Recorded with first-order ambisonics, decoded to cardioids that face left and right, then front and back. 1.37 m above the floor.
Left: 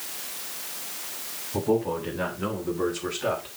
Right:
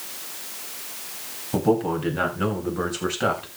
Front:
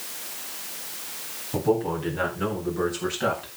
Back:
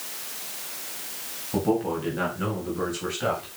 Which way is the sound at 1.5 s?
95° right.